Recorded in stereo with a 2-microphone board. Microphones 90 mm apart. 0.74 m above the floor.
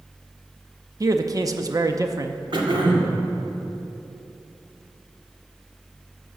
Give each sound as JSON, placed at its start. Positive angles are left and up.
{"t": 1.0, "sound": "a man speaking", "side_deg": -40, "distance_m": 0.6}
{"t": 2.5, "sound": "throat clearing", "side_deg": -60, "distance_m": 1.8}